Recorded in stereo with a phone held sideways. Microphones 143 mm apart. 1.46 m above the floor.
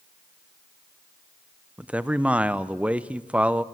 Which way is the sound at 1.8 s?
10° right (ahead or behind).